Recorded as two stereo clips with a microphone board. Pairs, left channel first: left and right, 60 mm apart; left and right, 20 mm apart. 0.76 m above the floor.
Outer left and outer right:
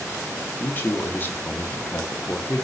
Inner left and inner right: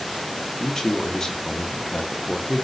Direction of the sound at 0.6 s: 30° left (ahead or behind).